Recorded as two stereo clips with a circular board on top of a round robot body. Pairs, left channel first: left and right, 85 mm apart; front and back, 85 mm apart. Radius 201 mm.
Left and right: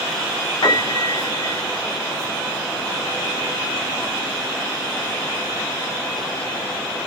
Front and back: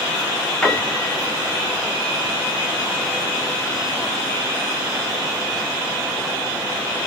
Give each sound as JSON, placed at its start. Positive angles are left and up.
{"t": 0.6, "sound": "a piano", "azimuth_deg": 75, "distance_m": 2.5}